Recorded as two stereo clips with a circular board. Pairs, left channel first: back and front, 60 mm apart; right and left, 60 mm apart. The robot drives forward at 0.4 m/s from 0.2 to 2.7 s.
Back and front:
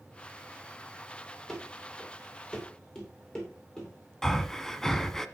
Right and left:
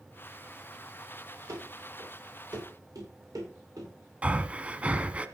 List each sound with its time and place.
1.5 s running footsteps: 100° left, 6.5 m; by 3.9 s 105° left, 8 m
4.2 s breathing: 110° left, 0.9 m